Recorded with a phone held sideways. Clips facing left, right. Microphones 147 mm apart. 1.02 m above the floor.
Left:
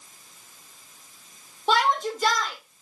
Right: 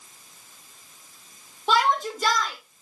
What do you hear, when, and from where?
1.7 s a shout: centre (ahead or behind), 1.5 m